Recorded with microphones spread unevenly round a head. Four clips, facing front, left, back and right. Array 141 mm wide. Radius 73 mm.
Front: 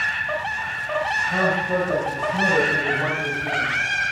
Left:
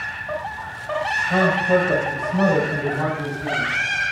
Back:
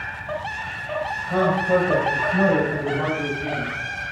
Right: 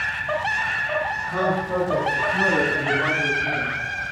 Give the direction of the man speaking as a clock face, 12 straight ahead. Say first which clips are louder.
Left 6 dB, back 5 dB; 8 o'clock.